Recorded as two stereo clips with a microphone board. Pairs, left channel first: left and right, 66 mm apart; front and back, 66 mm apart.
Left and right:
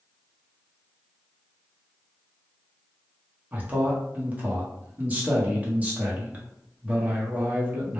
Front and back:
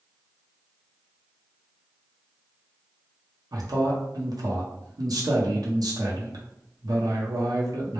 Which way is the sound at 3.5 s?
155° right.